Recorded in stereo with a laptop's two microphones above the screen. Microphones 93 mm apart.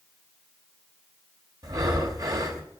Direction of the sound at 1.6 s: 45° right (ahead or behind).